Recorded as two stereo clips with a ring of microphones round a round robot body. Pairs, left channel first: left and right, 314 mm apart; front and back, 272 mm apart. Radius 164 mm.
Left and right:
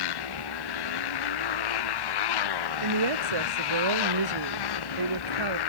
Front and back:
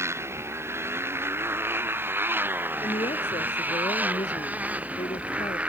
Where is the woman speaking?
80° right.